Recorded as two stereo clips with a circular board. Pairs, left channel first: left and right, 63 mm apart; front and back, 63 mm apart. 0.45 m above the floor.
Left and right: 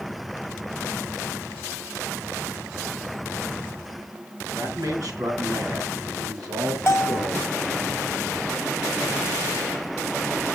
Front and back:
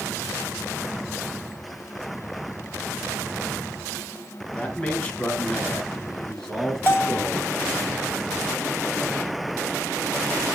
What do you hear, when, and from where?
4.5 s a man speaking: 65° right, 3.5 m; by 7.5 s 95° right, 3 m
6.9 s a bell: 50° left, 1.1 m